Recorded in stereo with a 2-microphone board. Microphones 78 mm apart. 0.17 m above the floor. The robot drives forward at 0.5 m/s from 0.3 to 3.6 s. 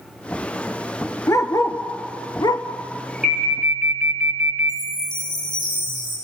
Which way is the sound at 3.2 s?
15° right (ahead or behind).